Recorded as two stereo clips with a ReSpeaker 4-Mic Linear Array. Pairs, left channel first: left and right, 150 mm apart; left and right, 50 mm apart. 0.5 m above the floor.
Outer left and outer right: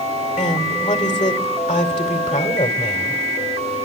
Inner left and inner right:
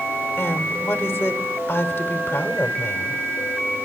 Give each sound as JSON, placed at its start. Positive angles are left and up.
{"t": 0.4, "sound": "a woman speaking", "side_deg": 55, "distance_m": 2.5}